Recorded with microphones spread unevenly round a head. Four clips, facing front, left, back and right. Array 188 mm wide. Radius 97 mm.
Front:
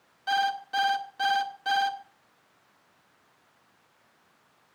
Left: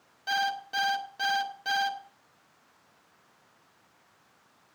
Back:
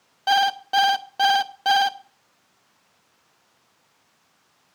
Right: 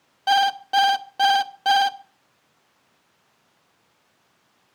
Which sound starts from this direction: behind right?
An alarm clock, at 0.3 s.